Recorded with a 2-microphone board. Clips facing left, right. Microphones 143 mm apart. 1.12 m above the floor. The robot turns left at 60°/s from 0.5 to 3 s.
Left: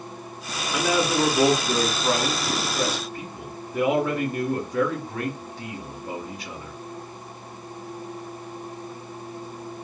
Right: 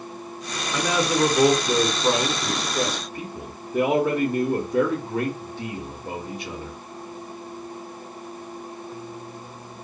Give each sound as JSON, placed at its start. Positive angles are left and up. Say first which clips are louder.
{"t": 0.7, "sound": "a man speaking", "louder": "even", "azimuth_deg": 10, "distance_m": 0.7}